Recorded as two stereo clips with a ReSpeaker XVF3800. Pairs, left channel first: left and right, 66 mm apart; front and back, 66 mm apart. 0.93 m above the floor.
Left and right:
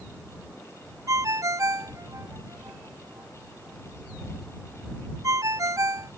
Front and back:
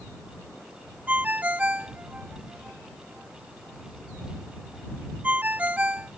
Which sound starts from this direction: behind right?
A ringtone, at 1.1 s.